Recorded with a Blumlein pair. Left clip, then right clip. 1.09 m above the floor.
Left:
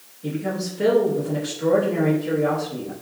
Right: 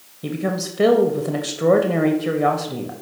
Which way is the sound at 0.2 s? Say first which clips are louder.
Right 2 dB; 55° right.